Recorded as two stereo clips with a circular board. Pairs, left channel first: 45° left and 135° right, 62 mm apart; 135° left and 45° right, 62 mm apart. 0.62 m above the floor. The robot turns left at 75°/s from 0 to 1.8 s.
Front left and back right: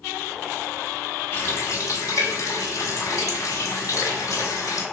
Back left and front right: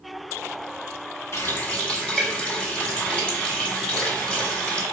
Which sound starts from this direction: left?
A running tap, at 1.3 s.